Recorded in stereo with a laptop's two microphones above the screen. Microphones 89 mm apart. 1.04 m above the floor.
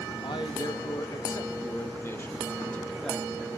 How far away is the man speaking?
About 1.6 m.